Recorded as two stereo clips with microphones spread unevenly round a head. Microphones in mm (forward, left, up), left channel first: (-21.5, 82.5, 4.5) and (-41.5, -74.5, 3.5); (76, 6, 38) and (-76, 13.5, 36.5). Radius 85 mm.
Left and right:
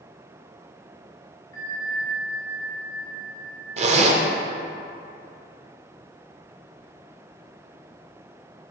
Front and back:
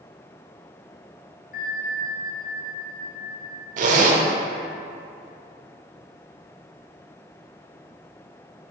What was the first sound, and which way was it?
A bell, 15° left.